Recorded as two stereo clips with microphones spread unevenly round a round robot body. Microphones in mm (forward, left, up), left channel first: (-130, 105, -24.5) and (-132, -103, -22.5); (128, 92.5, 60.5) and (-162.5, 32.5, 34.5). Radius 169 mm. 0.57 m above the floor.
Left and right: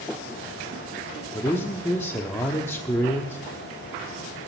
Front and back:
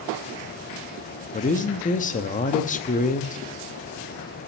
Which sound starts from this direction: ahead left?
A man speaking, at 1.3 s.